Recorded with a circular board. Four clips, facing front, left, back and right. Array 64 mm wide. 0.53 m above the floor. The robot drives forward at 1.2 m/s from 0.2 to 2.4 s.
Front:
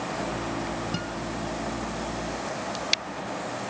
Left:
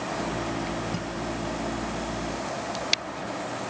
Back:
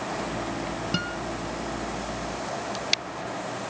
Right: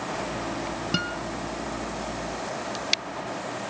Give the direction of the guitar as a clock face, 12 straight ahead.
4 o'clock.